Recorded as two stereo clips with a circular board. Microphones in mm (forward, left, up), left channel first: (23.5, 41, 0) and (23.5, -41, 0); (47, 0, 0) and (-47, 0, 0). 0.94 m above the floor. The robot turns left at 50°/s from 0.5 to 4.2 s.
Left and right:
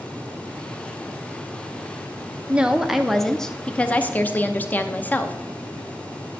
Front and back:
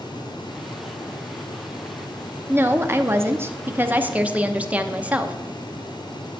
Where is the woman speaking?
150° right, 0.6 m; by 5.3 s 125° left, 0.6 m.